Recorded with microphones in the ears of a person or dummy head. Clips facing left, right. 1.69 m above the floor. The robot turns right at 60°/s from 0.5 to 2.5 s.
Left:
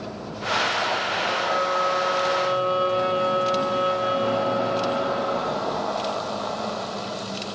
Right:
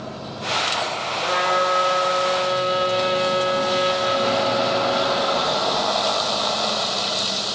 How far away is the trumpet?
About 4 m.